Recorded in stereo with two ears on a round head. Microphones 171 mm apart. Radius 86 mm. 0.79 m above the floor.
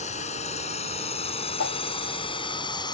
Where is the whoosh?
80° left.